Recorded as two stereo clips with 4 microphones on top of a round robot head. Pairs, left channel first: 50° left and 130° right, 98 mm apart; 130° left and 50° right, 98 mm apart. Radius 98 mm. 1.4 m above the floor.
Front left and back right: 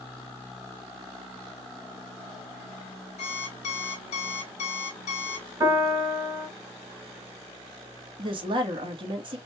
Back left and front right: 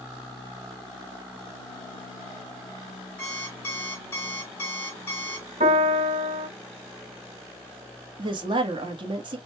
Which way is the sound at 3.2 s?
60° left.